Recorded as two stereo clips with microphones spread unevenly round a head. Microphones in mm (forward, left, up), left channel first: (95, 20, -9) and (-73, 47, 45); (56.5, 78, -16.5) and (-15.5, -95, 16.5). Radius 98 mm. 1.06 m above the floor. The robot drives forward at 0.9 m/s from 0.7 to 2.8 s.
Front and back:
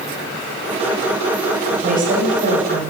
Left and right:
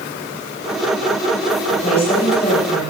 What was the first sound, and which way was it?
A woman speaking, 130° left.